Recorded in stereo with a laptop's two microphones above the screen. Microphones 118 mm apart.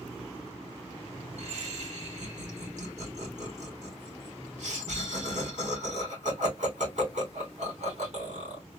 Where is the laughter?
80° right, 3 m.